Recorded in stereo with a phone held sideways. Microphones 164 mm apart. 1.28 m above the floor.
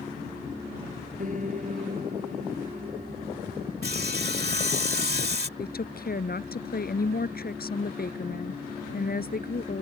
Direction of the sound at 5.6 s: 65° left (ahead or behind).